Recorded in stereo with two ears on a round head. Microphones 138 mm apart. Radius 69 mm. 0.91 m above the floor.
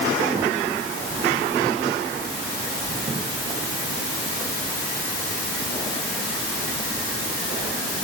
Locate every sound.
Only background noise.